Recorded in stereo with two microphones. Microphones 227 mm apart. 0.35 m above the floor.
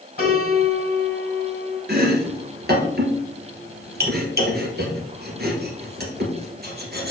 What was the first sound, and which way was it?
A piano, 40° left (ahead or behind).